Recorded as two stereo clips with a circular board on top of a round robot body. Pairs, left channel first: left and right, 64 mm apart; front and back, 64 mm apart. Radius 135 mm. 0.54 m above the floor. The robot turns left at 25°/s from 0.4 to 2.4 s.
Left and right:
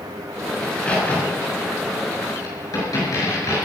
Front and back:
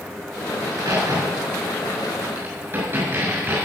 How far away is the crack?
About 7 m.